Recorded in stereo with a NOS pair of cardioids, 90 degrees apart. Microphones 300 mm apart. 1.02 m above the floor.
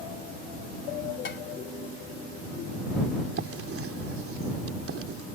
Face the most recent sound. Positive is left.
turn(degrees=-45)